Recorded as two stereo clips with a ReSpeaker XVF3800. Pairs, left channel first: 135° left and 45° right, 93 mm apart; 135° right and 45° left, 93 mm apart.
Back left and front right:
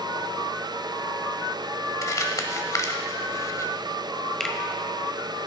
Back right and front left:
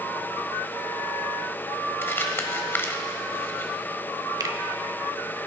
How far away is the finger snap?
About 1.2 m.